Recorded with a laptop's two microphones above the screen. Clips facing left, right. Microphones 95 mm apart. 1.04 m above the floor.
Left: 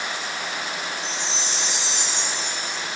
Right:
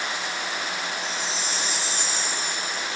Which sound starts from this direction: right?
A chime, at 1.0 s.